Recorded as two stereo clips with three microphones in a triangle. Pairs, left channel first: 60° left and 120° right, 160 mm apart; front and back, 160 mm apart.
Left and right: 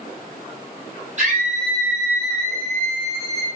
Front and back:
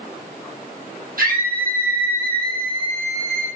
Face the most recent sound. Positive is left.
turn(degrees=-165)